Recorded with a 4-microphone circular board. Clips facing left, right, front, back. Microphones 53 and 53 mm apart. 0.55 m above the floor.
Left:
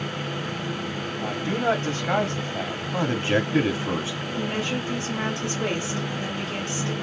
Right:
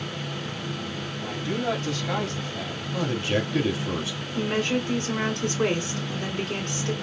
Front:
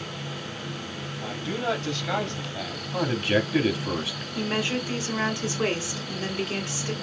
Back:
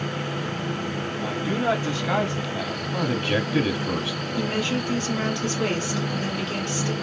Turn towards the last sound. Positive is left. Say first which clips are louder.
# right 3 dB, back 1 dB
turn(degrees=-70)